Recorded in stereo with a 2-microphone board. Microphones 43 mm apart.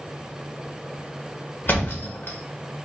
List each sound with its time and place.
1.7 s a thud: 50° left (ahead or behind), 0.7 m